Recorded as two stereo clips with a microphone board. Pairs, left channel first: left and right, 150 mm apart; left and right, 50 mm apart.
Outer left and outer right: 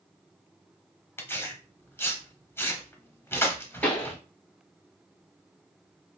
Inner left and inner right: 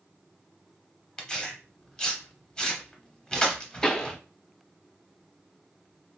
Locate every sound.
1.2 s tearing paper: 15° left (ahead or behind), 0.8 m
3.8 s a pop: 10° left (ahead or behind), 1.1 m